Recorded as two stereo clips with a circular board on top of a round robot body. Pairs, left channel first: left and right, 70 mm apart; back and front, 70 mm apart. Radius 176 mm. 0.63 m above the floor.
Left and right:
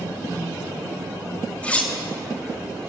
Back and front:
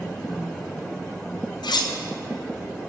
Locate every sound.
1.6 s cutlery clinking: 165° left, 0.5 m